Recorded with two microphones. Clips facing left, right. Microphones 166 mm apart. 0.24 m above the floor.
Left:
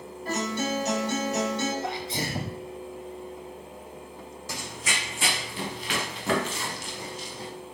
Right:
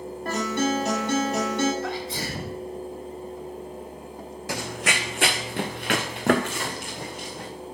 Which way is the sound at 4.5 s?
70° right (ahead or behind).